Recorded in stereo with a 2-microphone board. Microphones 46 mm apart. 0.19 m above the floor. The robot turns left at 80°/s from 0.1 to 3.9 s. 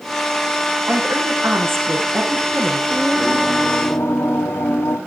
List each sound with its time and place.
0.9 s a woman speaking: 20° right, 8 m; by 2.8 s 175° right, 8 m
2.9 s singing: straight behind, 6 m; by 5.0 s 100° left, 6 m